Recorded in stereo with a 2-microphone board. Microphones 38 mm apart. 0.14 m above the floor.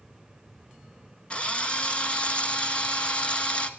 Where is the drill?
30° left (ahead or behind), 1.2 m.